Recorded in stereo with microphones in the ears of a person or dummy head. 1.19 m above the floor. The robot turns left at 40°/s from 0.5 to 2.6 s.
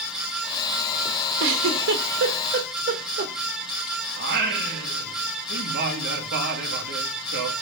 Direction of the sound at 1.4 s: 75° right (ahead or behind).